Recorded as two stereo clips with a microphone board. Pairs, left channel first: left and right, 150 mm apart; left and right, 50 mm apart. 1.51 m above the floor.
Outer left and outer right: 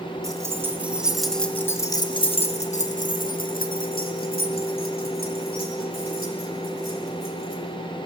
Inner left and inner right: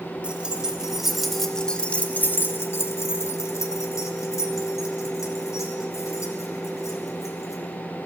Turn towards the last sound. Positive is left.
turn(degrees=75)  # may be behind; listen again after turning